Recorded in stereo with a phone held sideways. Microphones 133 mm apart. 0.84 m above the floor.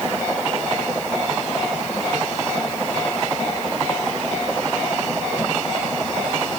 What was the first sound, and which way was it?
Only background noise.